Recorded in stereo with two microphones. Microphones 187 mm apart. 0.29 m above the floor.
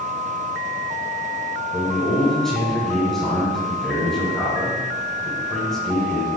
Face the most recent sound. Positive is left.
turn(degrees=5)  # may be behind; listen again after turning